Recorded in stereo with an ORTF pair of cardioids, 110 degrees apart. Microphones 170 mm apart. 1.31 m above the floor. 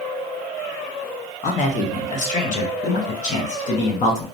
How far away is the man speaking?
About 0.8 m.